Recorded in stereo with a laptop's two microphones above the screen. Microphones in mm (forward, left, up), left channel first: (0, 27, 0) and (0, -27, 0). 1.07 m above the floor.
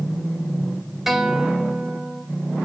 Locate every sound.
1.1 s a guitar: 5° right (ahead or behind), 1.2 m